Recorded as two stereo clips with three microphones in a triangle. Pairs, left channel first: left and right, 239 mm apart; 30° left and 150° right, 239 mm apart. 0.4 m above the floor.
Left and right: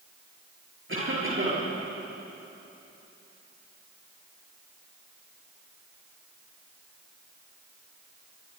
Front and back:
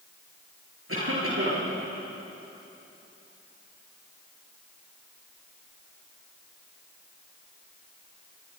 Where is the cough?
125° right, 9 m.